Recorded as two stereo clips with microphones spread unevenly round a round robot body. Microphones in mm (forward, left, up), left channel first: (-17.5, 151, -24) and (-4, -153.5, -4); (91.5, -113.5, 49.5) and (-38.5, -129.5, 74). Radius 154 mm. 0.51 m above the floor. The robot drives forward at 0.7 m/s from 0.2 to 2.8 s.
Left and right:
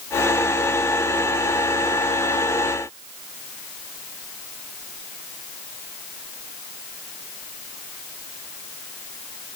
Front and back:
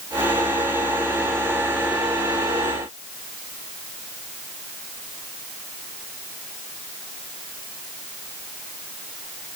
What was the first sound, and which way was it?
Only background noise.